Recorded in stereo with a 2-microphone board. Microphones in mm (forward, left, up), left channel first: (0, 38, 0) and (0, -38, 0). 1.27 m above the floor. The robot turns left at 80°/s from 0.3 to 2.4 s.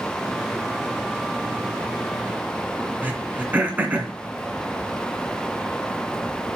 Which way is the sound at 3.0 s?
25° right (ahead or behind).